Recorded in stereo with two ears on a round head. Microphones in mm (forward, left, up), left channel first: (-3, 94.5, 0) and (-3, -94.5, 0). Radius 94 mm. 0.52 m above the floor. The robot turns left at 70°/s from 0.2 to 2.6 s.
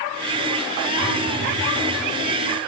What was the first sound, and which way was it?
A phone buzzing, 85° right.